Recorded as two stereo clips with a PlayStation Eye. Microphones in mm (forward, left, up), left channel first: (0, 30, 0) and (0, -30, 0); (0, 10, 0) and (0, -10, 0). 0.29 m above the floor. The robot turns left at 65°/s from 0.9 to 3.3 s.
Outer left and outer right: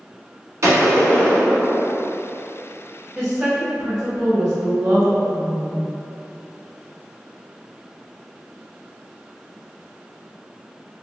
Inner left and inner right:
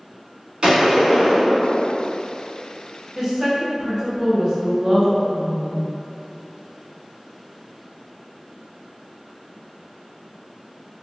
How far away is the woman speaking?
About 0.9 m.